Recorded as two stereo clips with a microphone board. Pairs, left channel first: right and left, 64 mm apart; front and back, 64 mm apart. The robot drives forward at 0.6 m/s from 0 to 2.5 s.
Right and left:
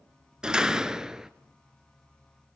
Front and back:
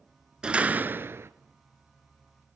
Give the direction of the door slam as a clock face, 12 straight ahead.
8 o'clock.